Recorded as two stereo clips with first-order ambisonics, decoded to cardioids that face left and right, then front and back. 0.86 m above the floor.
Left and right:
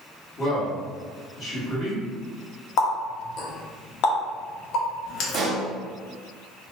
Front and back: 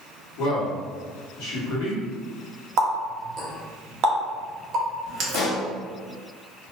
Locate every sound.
0.4 s a man speaking: 30° left, 1.2 m
2.8 s a running tap: 130° left, 0.6 m
5.3 s a pop: 40° right, 0.5 m